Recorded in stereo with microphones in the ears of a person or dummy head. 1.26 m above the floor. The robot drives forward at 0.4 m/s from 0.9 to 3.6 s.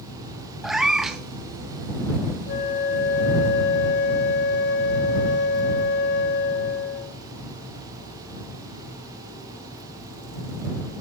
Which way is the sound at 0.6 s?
Centre (ahead or behind).